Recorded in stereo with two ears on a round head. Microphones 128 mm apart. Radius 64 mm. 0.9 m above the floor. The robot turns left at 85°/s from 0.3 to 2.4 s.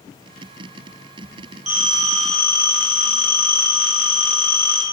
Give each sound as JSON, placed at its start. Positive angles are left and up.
{"t": 1.7, "sound": "a phone ringing", "azimuth_deg": -125, "distance_m": 0.6}